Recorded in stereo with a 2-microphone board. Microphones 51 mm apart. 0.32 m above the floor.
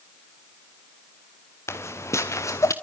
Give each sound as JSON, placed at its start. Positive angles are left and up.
{"t": 1.7, "sound": "footsteps", "side_deg": 60, "distance_m": 2.0}